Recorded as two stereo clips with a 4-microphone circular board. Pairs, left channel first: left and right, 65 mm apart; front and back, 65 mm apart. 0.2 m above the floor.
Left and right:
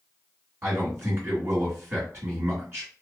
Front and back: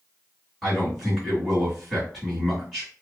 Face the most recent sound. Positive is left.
turn(degrees=-85)